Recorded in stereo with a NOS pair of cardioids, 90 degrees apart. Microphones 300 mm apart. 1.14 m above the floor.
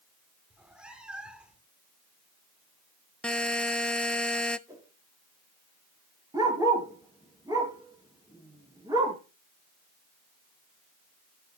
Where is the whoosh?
10° right, 3 m.